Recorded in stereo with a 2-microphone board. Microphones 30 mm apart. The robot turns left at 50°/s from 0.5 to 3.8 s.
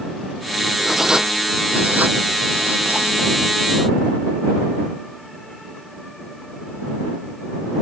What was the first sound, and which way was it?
Writing, 5° right (ahead or behind).